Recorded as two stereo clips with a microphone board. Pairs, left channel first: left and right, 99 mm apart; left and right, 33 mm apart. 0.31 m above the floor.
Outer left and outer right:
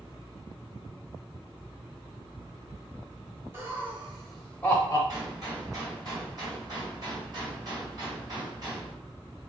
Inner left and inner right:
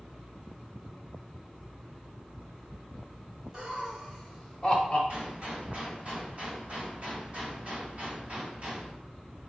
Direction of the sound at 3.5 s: 25° right (ahead or behind).